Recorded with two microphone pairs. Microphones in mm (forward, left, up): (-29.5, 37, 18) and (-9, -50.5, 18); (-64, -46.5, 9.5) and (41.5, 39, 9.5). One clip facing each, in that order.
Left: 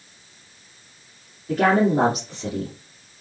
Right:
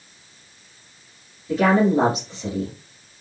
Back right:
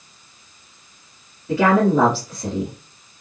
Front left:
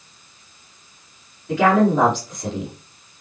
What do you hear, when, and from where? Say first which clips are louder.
1.5 s a woman speaking: right 1 dB, even; 140° left, 2.5 m